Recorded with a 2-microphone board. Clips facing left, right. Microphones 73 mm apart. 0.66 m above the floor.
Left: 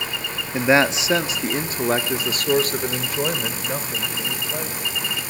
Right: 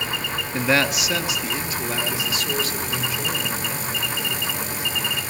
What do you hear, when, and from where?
0.5 s a man speaking: 15° left (ahead or behind), 0.8 m; by 4.8 s 55° left (ahead or behind), 3 m